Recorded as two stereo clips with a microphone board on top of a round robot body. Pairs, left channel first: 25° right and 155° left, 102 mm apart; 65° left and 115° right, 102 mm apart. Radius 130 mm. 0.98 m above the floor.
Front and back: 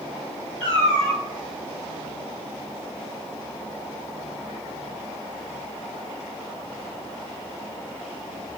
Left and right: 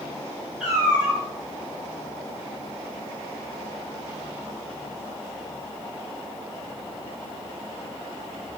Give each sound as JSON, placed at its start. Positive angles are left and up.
{"t": 0.6, "sound": "a cat meowing", "azimuth_deg": -25, "distance_m": 2.0}